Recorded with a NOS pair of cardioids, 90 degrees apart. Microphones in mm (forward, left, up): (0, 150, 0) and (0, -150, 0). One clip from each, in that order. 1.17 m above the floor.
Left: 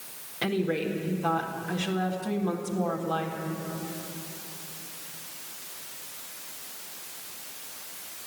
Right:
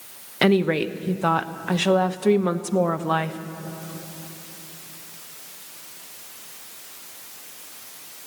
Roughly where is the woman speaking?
Right.